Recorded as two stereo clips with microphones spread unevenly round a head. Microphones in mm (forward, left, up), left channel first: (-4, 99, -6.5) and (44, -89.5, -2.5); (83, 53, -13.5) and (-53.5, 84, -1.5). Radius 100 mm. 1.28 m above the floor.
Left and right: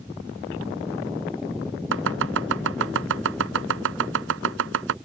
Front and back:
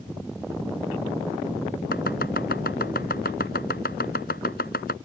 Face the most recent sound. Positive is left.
turn(degrees=-60)